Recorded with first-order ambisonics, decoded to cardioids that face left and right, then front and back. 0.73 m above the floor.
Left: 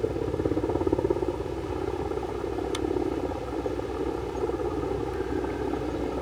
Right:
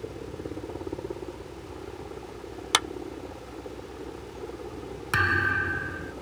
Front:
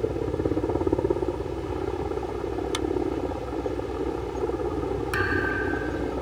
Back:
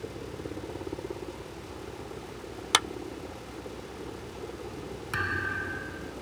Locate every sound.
0.0 s a helicopter: 40° left
2.7 s a clap: 125° right
5.1 s a thud: 75° right